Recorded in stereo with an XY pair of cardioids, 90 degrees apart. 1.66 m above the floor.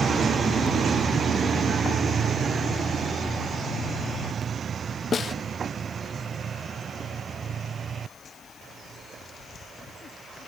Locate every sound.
5.1 s a snare drum: 50° left